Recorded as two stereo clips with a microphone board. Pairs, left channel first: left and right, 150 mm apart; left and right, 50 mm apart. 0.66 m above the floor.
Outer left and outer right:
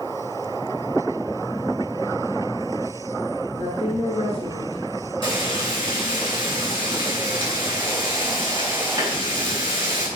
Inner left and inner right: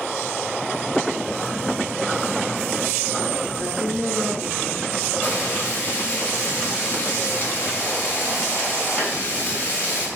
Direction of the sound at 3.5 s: 40° left (ahead or behind).